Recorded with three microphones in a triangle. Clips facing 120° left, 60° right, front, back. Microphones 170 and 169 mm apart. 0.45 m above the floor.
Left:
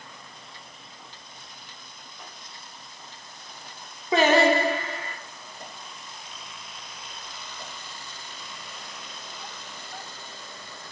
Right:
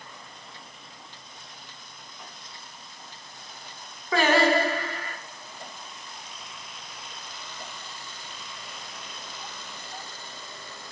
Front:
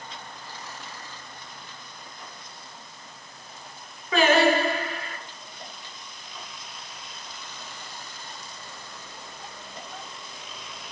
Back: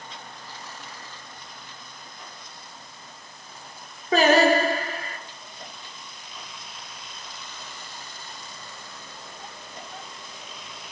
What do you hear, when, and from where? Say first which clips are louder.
4.1 s singing: left 2 dB, back 2 dB; 175° left, 0.9 m